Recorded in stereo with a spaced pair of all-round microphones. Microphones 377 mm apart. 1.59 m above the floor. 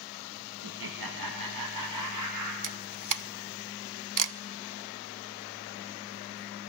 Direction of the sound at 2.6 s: 55° right (ahead or behind).